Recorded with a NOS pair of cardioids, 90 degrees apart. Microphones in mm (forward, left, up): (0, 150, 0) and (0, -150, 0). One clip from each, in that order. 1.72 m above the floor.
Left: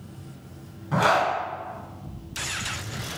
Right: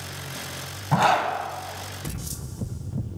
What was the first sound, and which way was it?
A zipper, 40° right.